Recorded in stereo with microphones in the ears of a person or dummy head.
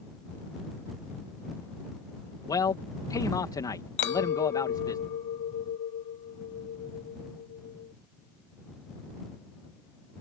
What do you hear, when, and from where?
2.5 s a man speaking: 25° left (ahead or behind)
4.0 s a clink: 75° left (ahead or behind)